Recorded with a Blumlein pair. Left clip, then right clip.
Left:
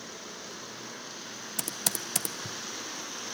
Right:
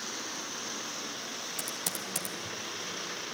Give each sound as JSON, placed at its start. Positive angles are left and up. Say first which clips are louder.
{"t": 1.6, "sound": "typing on a keyboard", "louder": "left 6 dB", "azimuth_deg": 20, "distance_m": 1.0}